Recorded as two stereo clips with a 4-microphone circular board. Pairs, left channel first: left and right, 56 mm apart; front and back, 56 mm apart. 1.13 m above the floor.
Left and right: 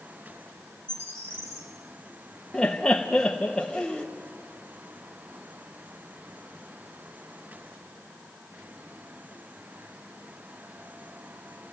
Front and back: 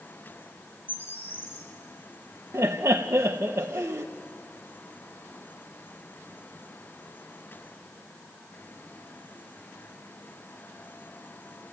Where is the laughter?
165° left, 0.8 m.